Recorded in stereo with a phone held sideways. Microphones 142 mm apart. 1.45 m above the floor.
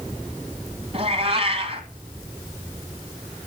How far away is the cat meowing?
About 1.5 m.